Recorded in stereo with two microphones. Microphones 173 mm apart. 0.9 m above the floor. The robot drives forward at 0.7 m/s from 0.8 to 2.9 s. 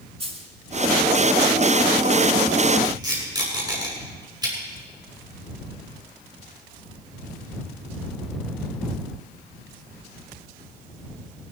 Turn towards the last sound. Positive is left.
turn(degrees=-25)  # may be behind; listen again after turning